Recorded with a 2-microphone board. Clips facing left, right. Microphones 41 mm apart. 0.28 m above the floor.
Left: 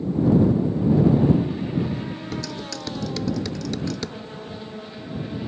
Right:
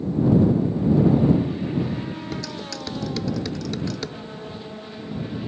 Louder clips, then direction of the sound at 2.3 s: Left 1 dB; 5° right (ahead or behind).